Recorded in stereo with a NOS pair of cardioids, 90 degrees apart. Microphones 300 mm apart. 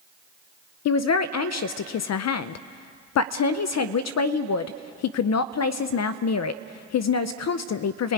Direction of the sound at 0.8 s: 60° left.